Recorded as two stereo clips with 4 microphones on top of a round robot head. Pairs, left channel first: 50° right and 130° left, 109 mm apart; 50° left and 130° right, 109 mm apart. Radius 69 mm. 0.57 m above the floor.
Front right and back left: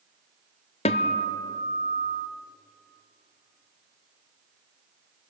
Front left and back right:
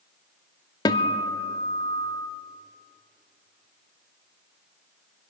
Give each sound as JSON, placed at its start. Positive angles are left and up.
{"t": 0.8, "sound": "a guitar", "azimuth_deg": -10, "distance_m": 0.5}